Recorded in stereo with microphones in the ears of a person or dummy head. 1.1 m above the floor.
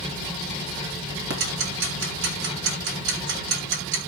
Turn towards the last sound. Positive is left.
turn(degrees=-70)  # may be behind; listen again after turning